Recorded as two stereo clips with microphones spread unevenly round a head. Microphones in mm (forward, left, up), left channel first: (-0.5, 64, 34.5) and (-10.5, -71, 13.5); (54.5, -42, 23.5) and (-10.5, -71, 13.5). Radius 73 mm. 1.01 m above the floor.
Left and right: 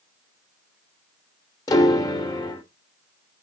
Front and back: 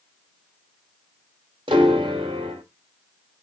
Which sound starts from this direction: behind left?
A piano, at 1.7 s.